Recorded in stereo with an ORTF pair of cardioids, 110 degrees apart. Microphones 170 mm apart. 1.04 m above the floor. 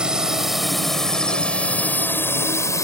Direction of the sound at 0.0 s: 5° right.